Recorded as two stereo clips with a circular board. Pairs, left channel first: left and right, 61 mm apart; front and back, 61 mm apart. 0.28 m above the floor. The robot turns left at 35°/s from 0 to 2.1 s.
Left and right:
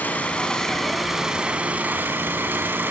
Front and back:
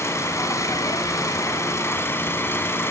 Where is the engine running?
30° left, 2.5 m; by 2.9 s 40° right, 2.5 m.